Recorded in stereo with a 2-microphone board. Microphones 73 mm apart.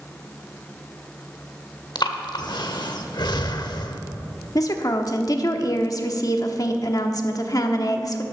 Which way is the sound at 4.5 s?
55° left (ahead or behind).